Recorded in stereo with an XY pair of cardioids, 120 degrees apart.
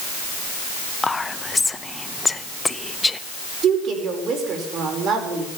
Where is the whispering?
20° left, 0.7 m.